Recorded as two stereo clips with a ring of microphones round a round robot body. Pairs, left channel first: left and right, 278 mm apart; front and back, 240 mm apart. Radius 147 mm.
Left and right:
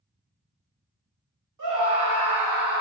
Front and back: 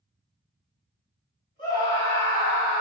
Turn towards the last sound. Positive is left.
turn(degrees=-75)